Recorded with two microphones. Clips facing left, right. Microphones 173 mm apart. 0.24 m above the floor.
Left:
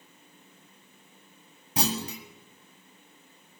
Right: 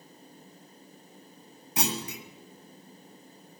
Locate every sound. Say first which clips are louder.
1.8 s a clunk: left 2 dB; 35° left (ahead or behind), 1.4 m